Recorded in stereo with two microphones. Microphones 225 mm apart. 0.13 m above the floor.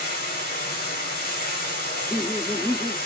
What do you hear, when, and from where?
0.0 s running water: 40° left (ahead or behind), 3 m
1.9 s laughter: 10° left (ahead or behind), 3.5 m